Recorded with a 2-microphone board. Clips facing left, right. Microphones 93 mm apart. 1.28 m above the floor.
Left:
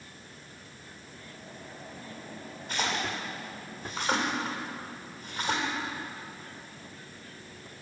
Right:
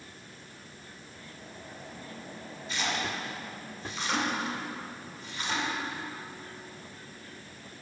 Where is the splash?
50° left (ahead or behind), 2 m.